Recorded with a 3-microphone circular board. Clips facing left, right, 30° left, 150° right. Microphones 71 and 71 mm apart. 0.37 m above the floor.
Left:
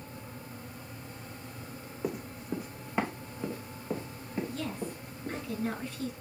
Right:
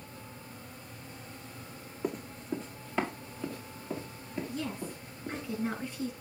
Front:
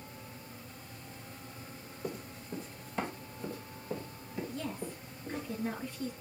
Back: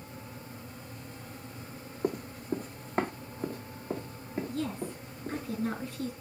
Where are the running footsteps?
Straight behind, 1.2 m; by 5.4 s 160° left, 4 m.